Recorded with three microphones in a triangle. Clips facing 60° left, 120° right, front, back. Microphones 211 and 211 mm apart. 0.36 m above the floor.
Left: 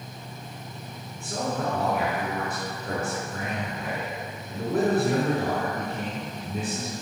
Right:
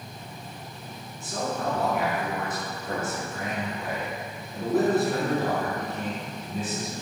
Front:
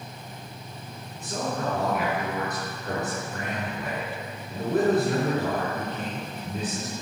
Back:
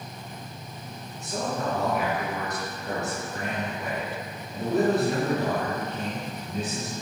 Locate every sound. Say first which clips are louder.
1.2 s a man speaking: left 1 dB, even; 20° left, 3.5 m